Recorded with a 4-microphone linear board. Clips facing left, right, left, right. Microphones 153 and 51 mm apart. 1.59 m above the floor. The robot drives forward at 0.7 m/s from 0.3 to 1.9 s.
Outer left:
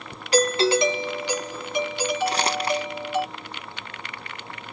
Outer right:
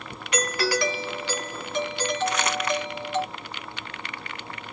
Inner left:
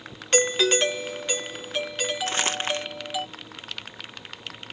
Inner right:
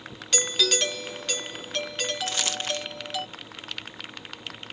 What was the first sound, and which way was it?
A doorbell, 35° left (ahead or behind).